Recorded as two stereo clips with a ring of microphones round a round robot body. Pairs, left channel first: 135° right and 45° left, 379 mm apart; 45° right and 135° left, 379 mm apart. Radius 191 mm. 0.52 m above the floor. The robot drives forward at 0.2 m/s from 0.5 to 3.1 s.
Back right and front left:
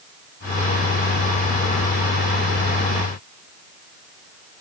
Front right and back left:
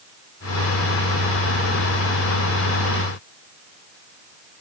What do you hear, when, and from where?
Only background noise.